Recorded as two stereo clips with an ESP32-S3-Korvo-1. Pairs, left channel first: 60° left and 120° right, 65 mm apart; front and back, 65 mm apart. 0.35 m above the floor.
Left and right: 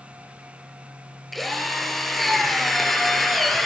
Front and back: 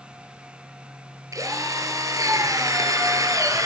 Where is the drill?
145° left, 3 m.